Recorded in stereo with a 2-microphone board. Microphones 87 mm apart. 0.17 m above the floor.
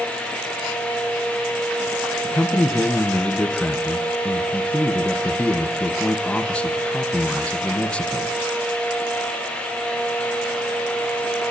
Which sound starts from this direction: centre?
A man speaking, at 2.2 s.